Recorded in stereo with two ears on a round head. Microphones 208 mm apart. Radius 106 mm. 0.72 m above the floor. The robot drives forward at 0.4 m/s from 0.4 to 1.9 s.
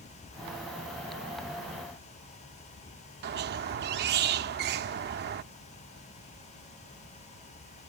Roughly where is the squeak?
Right.